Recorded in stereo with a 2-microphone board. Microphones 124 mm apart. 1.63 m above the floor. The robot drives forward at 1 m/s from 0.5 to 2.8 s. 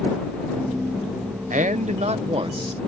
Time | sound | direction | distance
1.5 | a man speaking | 85° right | ?